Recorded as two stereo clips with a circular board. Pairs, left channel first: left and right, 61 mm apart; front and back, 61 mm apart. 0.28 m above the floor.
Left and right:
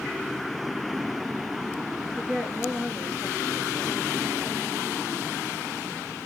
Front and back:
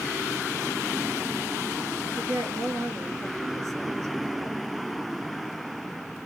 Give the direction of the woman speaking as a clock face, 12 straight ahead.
6 o'clock.